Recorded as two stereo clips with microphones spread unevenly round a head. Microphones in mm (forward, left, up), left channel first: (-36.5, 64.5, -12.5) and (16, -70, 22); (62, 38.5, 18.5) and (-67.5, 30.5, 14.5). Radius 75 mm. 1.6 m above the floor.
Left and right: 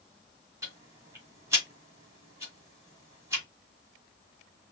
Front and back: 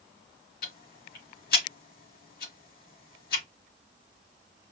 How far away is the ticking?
About 3 m.